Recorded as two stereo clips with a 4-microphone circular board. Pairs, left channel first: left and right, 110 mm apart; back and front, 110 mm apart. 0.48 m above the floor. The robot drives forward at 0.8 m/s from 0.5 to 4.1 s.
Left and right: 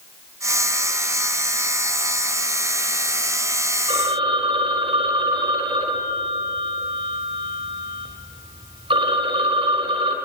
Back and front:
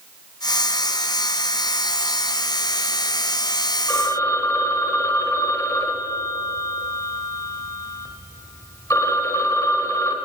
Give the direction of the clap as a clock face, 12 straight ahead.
No clap in this recording.